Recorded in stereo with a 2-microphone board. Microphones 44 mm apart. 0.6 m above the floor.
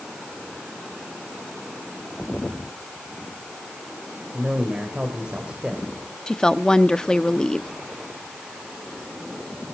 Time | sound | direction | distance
4.3 | a man speaking | 25° right (ahead or behind) | 2.5 m
6.3 | a woman speaking | 15° left (ahead or behind) | 0.6 m